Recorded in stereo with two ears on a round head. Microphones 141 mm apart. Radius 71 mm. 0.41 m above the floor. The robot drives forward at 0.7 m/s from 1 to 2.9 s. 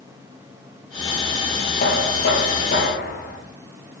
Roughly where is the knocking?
Left.